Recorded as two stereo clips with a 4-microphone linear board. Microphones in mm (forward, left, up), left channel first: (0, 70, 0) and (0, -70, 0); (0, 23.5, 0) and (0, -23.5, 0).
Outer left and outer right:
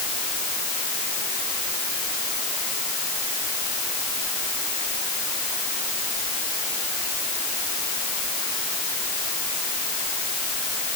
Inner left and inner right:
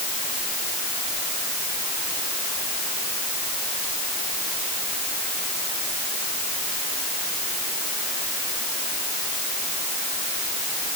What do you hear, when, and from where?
Only background noise.